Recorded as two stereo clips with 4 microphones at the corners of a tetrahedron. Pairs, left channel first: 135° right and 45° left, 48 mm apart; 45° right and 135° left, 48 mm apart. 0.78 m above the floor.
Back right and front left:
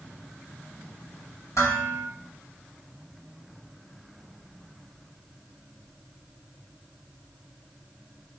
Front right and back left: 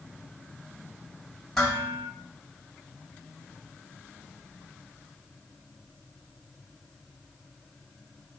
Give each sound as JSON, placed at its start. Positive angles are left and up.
{"t": 1.6, "sound": "dishes clattering", "azimuth_deg": -125, "distance_m": 4.0}